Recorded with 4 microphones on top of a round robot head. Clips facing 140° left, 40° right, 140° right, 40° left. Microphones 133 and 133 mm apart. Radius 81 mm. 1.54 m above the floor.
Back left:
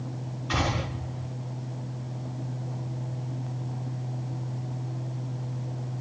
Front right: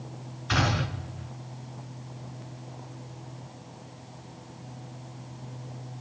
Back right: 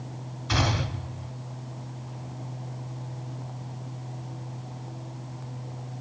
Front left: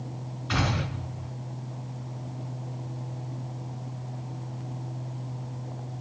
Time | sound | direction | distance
0.5 | a gunshot | 90° right | 2.5 m